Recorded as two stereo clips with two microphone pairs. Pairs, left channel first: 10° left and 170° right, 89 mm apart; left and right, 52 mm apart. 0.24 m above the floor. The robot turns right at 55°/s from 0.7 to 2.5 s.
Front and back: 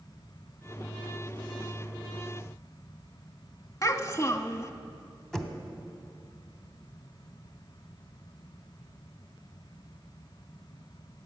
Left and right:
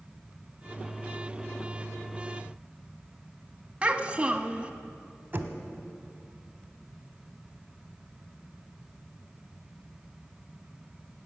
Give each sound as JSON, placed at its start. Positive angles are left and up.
{"t": 3.8, "sound": "a child speaking", "azimuth_deg": -30, "distance_m": 0.9}
{"t": 5.3, "sound": "knocking", "azimuth_deg": -70, "distance_m": 1.1}